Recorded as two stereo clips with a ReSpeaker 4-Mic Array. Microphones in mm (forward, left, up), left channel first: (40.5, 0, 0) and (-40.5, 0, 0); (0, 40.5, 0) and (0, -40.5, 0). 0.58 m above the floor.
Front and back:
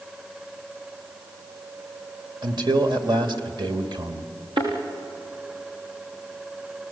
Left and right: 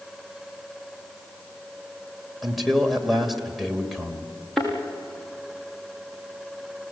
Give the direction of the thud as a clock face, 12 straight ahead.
6 o'clock.